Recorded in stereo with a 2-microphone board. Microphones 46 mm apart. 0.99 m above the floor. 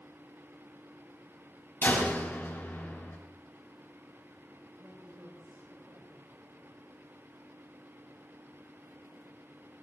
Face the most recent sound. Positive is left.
turn(degrees=-85)